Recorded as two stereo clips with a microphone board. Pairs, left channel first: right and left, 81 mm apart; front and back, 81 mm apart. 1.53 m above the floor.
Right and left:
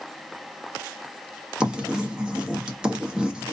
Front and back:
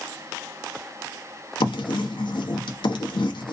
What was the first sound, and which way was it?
Writing, 10° left.